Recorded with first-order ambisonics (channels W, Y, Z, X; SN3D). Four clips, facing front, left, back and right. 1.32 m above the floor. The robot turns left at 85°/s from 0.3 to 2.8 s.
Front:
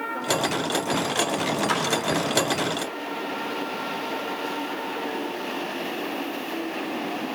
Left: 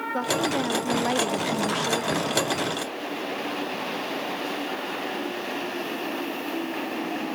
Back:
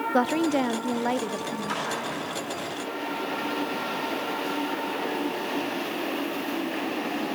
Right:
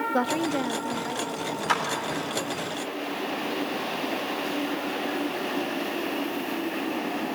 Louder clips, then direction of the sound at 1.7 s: Right 2 dB, front 3 dB; 65° right.